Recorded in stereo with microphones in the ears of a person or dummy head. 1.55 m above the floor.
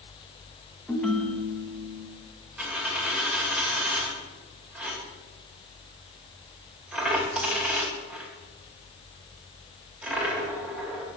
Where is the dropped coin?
5° right (ahead or behind), 2.5 m.